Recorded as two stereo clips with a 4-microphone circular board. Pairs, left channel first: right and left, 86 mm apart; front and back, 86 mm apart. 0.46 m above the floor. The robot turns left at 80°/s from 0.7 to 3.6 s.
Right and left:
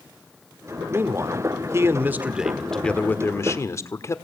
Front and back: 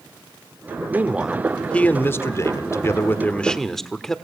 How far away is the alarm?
I don't hear an alarm.